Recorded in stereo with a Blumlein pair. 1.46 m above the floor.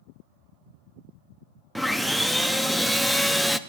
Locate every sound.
1.8 s sawing: straight ahead, 0.5 m